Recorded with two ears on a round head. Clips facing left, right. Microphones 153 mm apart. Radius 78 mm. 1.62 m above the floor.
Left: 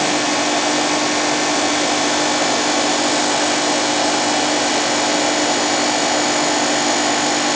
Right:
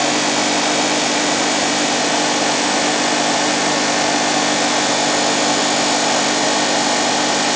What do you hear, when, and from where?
Only background noise.